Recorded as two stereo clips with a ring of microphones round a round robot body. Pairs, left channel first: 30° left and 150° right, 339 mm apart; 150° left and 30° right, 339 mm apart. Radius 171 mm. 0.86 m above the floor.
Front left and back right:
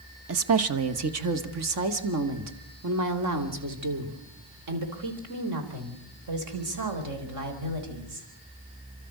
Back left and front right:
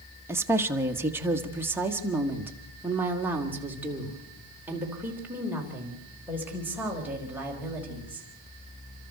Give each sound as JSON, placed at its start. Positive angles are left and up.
{"t": 0.3, "sound": "a woman speaking", "azimuth_deg": -110, "distance_m": 1.2}